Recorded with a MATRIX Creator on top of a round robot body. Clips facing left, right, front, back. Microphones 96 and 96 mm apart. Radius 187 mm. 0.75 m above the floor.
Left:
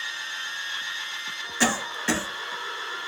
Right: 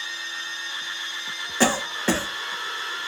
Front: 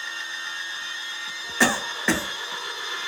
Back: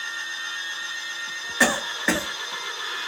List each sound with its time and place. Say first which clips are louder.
1.6 s a cough: right 4 dB, even; 90° right, 1.3 m